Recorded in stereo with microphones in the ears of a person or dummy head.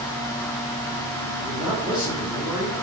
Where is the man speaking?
5° right (ahead or behind), 4 m.